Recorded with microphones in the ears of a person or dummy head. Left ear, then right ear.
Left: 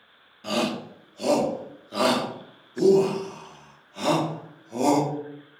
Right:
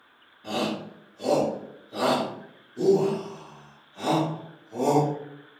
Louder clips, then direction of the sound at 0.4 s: Left 2 dB; 80° left.